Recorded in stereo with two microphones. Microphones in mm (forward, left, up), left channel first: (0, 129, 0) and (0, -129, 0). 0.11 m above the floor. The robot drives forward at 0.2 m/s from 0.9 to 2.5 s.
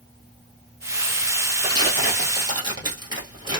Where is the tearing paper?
15° right (ahead or behind), 1.3 m.